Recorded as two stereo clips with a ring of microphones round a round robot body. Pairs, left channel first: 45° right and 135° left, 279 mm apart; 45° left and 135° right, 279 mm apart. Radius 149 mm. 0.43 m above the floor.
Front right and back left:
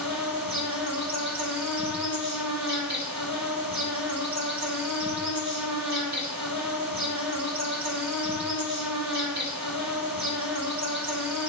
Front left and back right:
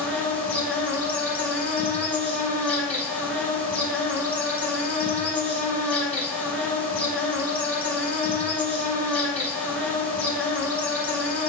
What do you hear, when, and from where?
0.0 s an insect: 130° left, 2.5 m